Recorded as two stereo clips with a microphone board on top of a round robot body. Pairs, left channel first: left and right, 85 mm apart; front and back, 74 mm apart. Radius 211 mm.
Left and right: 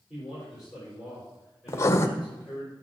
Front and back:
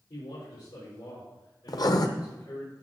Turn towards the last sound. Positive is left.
turn(degrees=35)